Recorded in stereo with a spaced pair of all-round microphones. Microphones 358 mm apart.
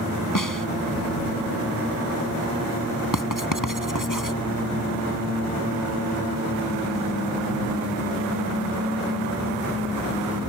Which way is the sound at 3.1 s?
60° left (ahead or behind).